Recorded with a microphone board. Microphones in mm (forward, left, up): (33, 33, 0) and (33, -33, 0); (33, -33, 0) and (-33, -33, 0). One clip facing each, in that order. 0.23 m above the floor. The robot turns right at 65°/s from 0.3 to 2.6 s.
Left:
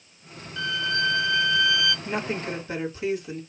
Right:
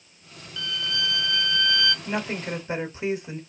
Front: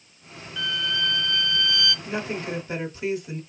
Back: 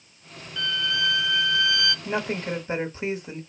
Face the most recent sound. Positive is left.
turn(degrees=-145)